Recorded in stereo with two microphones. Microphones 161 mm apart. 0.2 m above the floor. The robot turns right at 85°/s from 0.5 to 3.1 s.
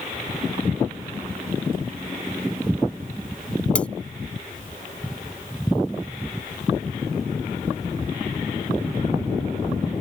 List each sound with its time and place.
3.8 s cutlery clinking: 10° left (ahead or behind)